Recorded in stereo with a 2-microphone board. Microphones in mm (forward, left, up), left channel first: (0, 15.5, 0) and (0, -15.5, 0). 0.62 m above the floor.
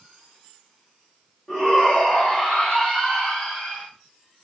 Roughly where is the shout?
Left.